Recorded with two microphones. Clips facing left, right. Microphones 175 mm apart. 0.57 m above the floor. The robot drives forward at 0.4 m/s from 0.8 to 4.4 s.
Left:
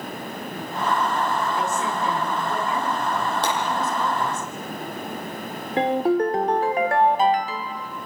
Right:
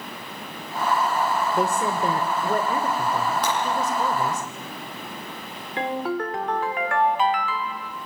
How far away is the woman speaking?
About 2 m.